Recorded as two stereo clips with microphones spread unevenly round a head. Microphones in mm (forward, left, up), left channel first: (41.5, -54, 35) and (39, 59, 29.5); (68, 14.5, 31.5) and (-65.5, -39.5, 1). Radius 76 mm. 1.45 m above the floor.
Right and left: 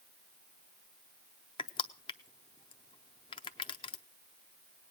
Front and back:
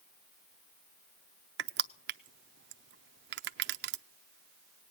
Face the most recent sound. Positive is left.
turn(degrees=-145)